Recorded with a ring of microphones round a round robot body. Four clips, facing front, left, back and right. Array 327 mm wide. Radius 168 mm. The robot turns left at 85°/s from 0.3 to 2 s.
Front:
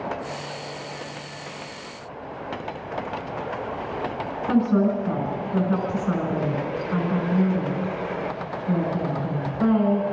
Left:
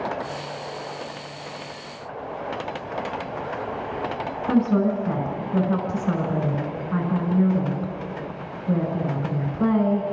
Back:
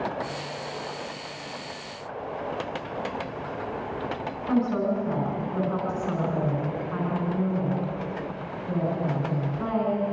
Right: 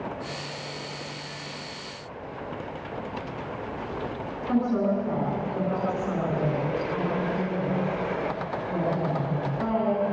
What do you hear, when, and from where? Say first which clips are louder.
4.5 s a woman speaking: left 4 dB, front 4 dB; 75° left, 6.5 m